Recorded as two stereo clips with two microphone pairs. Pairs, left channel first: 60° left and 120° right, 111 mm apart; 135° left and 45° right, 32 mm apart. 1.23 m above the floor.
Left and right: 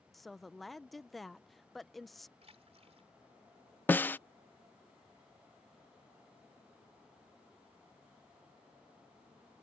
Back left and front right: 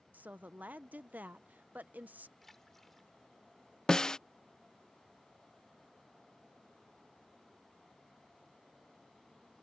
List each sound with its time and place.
0.1 s a woman speaking: 25° right
2.4 s a splash: 145° right
3.9 s a snare drum: 100° left